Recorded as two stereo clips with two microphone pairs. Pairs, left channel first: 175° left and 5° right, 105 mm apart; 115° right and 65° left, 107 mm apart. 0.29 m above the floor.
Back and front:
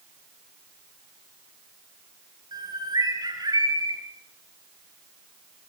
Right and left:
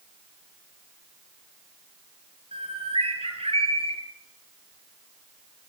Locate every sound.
2.5 s a bird: 40° left, 6.5 m